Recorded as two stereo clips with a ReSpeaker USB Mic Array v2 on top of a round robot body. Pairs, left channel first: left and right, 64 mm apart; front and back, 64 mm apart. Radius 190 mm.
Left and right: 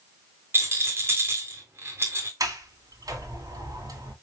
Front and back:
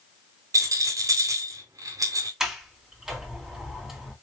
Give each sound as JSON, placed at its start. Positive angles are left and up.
{"t": 0.5, "sound": "a rattle", "azimuth_deg": -145, "distance_m": 1.2}
{"t": 2.4, "sound": "a sliding door", "azimuth_deg": -95, "distance_m": 2.0}